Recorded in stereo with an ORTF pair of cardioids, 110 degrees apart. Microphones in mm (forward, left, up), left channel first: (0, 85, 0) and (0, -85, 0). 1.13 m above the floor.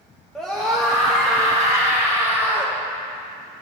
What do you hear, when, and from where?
0.3 s a scream: straight ahead, 0.9 m